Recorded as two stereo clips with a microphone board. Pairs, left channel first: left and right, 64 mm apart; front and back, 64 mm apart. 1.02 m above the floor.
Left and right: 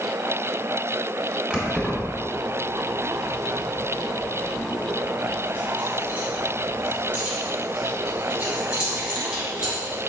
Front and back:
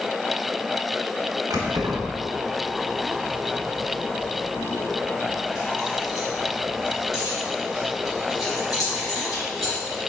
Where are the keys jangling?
165° right, 1.7 m; by 10.0 s 15° right, 4.5 m.